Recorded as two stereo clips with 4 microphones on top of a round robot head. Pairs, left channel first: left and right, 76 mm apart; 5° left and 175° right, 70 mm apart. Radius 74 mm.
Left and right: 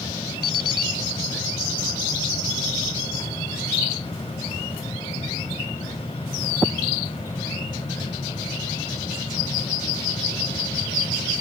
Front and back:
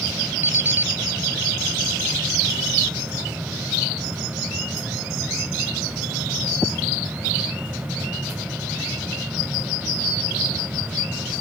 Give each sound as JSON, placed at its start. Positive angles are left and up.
{"t": 0.4, "sound": "an alarm clock", "azimuth_deg": 125}